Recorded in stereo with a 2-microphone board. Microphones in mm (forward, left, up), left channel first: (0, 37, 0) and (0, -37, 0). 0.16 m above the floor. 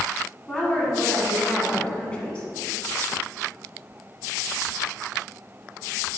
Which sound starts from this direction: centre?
A woman speaking, at 0.5 s.